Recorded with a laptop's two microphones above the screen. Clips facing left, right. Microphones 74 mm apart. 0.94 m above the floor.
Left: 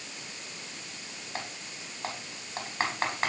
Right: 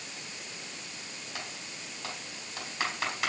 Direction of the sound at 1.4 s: 35° left (ahead or behind).